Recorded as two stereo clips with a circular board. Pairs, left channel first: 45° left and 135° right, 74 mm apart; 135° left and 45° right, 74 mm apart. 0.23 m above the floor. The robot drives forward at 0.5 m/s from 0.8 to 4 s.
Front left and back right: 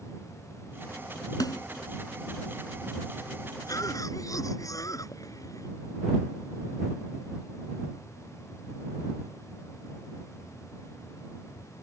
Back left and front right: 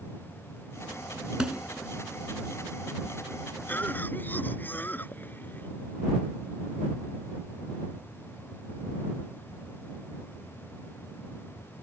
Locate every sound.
1.4 s a snare drum: 35° left
3.7 s a cough: 70° left; by 5.7 s 75° left